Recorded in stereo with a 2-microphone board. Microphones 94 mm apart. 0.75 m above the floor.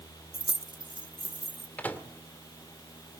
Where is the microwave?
20° left (ahead or behind), 1.8 m.